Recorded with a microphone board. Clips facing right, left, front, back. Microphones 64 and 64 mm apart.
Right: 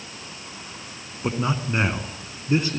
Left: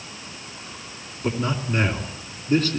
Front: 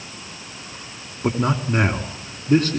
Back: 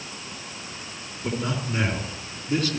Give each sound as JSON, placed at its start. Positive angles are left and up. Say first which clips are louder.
{"t": 1.2, "sound": "a man speaking", "louder": "even, front 7 dB", "azimuth_deg": -25, "distance_m": 2.5}